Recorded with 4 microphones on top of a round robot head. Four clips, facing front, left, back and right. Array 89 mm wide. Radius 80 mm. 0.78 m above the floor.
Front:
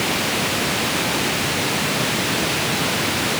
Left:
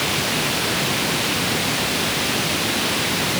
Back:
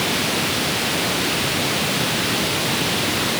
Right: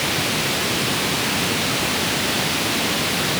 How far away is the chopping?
I don't hear chopping.